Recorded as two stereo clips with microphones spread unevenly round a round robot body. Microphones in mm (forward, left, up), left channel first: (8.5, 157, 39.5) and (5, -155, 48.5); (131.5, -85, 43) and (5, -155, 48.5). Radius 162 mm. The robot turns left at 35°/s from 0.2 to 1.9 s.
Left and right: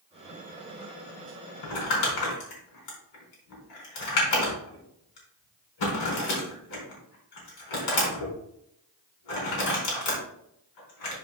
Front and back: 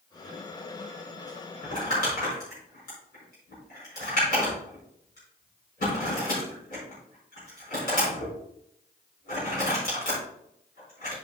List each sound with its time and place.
1.6 s crumpling: 80° left, 4.5 m; by 11.2 s 75° left, 4.5 m